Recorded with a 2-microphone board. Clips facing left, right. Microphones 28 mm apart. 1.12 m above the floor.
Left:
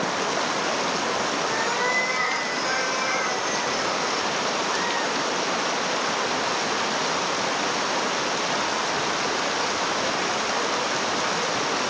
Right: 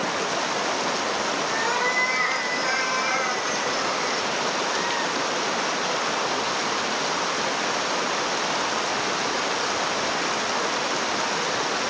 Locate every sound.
1.5 s a cat meowing: 10° right (ahead or behind), 6.5 m; by 4.2 s 25° right (ahead or behind), 5.5 m